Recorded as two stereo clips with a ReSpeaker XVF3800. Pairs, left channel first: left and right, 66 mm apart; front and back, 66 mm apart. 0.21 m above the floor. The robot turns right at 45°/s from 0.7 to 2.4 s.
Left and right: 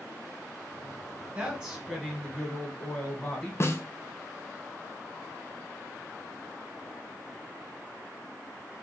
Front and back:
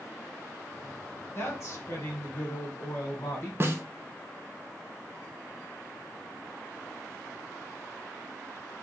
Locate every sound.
1.4 s a woman speaking: 25° right, 1.9 m; by 3.5 s 20° left, 1.9 m
3.6 s a snare drum: 135° left, 0.8 m